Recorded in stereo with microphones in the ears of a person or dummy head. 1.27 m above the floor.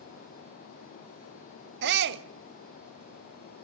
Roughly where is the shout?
Right.